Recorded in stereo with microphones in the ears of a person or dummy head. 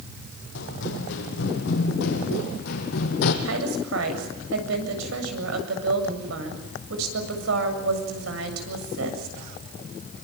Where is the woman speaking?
85° right, 7.5 m.